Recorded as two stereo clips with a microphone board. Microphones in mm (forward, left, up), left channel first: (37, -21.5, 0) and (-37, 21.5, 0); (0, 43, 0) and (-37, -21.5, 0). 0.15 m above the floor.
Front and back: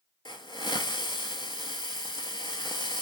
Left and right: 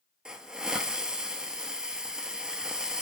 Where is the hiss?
40° right, 0.5 m.